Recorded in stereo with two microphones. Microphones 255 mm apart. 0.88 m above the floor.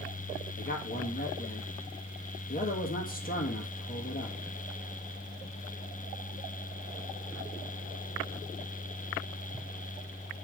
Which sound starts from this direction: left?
A man speaking, at 0.6 s.